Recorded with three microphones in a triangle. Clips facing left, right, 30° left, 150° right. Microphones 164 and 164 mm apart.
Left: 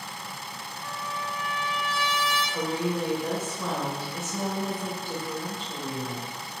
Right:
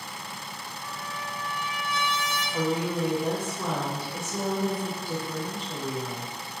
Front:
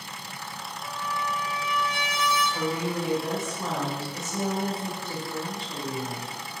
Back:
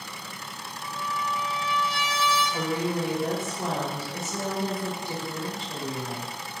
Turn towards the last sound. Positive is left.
turn(degrees=-160)